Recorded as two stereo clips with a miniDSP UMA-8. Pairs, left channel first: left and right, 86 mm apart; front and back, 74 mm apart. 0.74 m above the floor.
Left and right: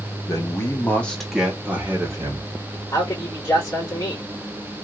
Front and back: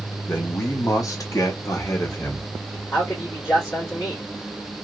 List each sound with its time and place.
0.3 s a man speaking: 50° left, 1.3 m; by 2.8 s 50° right, 1.9 m
2.9 s a man speaking: 30° left, 2 m